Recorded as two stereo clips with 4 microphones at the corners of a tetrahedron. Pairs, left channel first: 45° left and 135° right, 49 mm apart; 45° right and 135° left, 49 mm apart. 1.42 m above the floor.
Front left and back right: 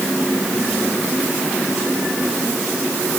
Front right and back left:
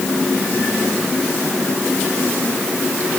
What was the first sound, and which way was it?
Only background noise.